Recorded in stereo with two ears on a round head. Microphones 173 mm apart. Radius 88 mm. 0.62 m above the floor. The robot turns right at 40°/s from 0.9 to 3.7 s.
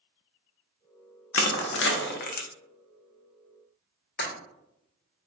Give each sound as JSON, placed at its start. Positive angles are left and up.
{"t": 1.3, "sound": "crushing", "side_deg": 75, "distance_m": 0.5}
{"t": 4.2, "sound": "breaking glass", "side_deg": 60, "distance_m": 1.4}